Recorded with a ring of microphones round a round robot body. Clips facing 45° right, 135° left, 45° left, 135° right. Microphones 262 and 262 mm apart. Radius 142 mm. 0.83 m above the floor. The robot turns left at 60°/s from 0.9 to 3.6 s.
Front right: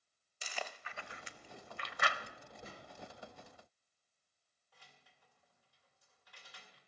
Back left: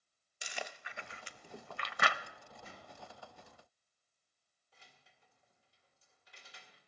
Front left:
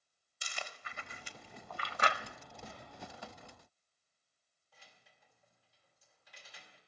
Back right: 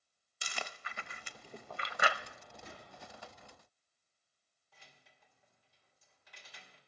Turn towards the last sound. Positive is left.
turn(degrees=-155)